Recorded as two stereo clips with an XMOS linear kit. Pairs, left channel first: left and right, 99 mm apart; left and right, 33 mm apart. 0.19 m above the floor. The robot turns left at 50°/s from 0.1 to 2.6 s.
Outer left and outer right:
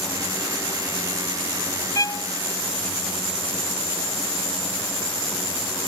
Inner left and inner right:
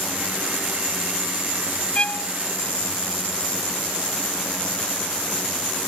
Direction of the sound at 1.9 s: 35° left (ahead or behind).